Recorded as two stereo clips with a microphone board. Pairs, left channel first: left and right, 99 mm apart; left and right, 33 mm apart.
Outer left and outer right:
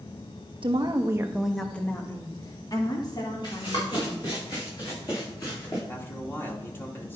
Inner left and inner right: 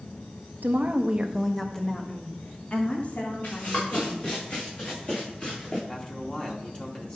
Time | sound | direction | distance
0.6 | a woman speaking | 55° right (ahead or behind) | 1.2 m
3.4 | running footsteps | 50° left (ahead or behind) | 5.5 m
5.9 | a man speaking | 25° left (ahead or behind) | 2.5 m